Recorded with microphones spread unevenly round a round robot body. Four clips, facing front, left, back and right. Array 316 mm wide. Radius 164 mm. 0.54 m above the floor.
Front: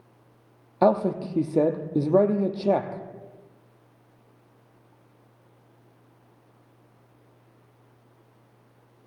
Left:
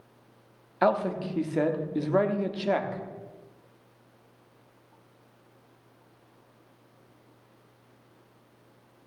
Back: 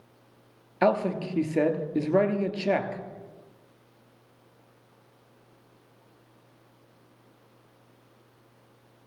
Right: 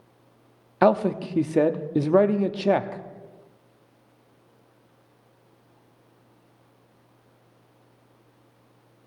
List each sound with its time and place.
0.8 s a man speaking: 65° right, 0.9 m